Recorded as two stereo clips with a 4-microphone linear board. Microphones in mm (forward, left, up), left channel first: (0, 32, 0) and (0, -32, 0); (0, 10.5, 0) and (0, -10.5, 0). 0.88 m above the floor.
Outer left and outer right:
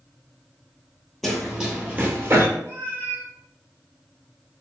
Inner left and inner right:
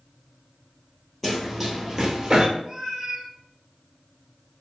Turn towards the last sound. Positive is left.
turn(degrees=-35)  # may be behind; listen again after turning